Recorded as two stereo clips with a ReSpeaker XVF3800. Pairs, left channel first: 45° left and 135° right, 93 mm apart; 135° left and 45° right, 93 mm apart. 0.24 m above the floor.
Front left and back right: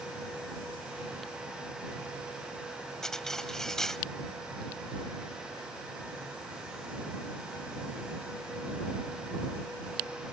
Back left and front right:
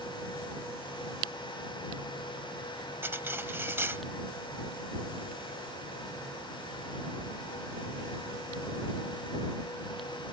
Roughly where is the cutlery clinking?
Ahead right.